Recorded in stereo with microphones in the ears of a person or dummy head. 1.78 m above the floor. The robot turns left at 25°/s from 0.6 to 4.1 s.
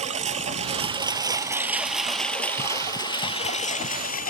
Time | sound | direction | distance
0.0 | a lawn mower | 145° right | ?